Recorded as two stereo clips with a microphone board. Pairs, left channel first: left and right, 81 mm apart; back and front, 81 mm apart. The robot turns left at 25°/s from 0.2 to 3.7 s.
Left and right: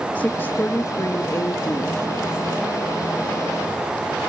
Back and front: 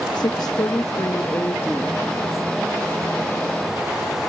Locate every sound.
0.1 s a woman speaking: 160° left, 1.0 m; by 2.1 s 115° left, 1.0 m